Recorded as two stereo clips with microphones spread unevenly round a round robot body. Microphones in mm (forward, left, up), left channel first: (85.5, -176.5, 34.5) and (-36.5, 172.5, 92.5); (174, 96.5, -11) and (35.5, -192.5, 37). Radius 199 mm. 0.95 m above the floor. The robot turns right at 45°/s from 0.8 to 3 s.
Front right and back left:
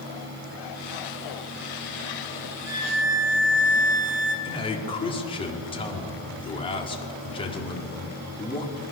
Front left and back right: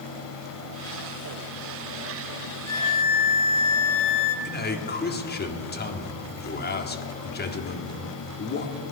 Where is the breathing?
I don't hear breathing.